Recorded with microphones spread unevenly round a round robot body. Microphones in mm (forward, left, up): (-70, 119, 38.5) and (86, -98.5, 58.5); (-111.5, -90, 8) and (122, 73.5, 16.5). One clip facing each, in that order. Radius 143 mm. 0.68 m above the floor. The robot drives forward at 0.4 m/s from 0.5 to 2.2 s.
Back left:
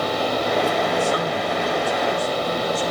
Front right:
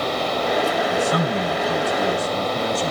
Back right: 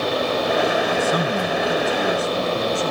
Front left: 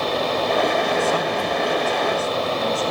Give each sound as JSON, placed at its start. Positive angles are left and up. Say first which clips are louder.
{"t": 0.9, "sound": "a man speaking", "louder": "front right 1 dB, back right 1 dB", "azimuth_deg": -75, "distance_m": 4.0}